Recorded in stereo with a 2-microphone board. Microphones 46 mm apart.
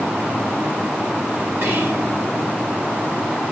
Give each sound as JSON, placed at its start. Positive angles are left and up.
{"t": 1.6, "sound": "whispering", "side_deg": -60, "distance_m": 2.5}